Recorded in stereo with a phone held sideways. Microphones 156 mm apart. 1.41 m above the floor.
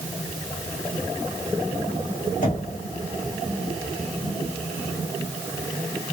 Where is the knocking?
55° left (ahead or behind), 1.8 m.